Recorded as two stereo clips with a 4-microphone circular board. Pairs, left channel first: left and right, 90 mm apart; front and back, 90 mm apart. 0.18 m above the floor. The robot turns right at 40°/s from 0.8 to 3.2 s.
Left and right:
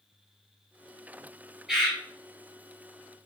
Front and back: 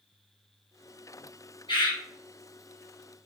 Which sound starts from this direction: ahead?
A bird, at 1.7 s.